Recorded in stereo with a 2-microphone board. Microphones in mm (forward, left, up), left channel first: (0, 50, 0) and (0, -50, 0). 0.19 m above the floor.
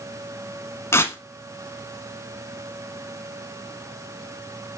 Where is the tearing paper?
25° left (ahead or behind), 0.8 m.